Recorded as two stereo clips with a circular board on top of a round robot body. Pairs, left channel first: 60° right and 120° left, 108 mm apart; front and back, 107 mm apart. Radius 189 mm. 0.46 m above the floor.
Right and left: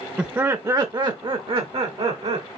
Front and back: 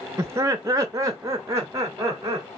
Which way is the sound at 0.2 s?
175° right.